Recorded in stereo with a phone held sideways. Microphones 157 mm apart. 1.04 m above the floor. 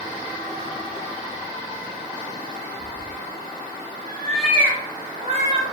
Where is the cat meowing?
50° left (ahead or behind), 1.3 m; by 5.6 s 50° right (ahead or behind), 1.0 m.